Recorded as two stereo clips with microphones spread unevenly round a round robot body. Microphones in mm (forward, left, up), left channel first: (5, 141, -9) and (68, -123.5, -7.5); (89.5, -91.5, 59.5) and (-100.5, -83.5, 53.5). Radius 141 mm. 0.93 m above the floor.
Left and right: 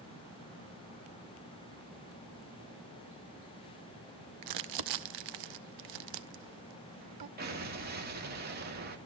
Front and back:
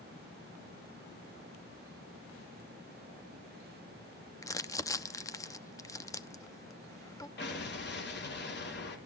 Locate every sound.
4.4 s crumpling: 75° right, 0.8 m
7.4 s an explosion: 25° right, 2.5 m